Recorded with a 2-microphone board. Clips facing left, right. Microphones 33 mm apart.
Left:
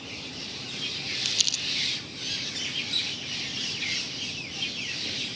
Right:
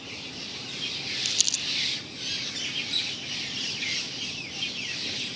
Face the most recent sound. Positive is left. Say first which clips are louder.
# left 2 dB
turn(degrees=10)  # may be behind; listen again after turning